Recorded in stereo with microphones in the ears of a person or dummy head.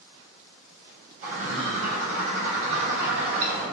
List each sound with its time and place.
1.2 s a bird: 35° right (ahead or behind), 1.2 m